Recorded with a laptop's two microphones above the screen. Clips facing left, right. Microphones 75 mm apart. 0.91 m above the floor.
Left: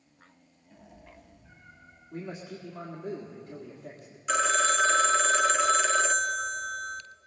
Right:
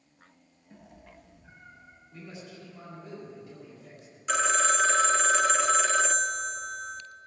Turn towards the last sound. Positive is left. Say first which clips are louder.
# even
turn(degrees=0)  # may be behind; listen again after turning